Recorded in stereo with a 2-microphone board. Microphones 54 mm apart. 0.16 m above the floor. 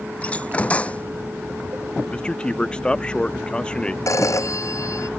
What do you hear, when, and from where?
0.2 s a door slam: 20° left (ahead or behind)
2.1 s a man speaking: 15° left (ahead or behind)
4.1 s a phone ringing: 65° left (ahead or behind)